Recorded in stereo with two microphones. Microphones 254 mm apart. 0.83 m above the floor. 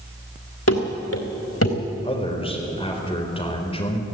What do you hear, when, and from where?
0.7 s running footsteps: 70° left (ahead or behind), 3 m; by 1.8 s 65° left (ahead or behind), 3 m
2.0 s a man speaking: 20° left (ahead or behind), 3.5 m